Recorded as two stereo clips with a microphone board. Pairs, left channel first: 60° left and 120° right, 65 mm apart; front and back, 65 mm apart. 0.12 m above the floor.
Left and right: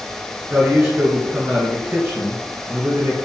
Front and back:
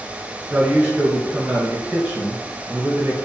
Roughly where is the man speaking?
Behind right.